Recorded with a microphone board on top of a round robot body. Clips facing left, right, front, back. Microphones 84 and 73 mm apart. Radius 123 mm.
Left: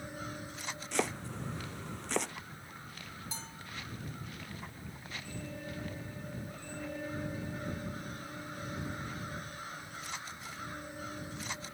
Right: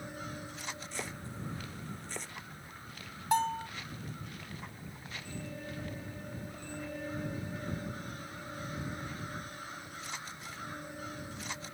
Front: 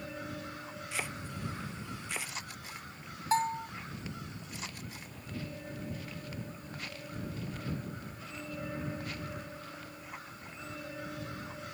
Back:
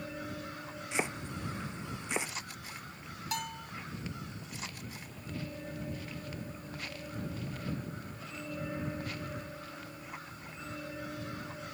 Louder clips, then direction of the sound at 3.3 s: Right 18 dB, front 10 dB; 60° right.